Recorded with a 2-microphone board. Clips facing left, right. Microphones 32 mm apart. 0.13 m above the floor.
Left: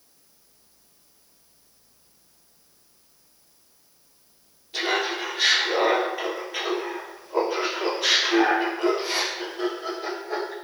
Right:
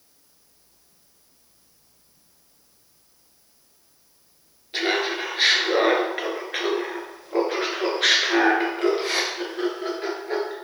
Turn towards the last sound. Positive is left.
turn(degrees=-45)  # may be behind; listen again after turning